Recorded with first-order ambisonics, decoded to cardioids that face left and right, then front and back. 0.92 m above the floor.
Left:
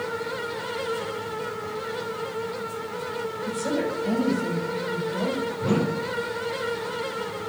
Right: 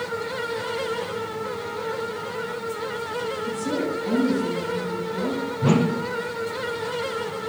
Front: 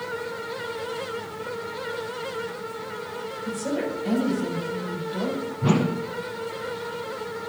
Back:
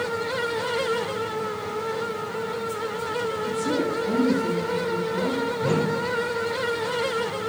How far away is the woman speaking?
About 6.5 m.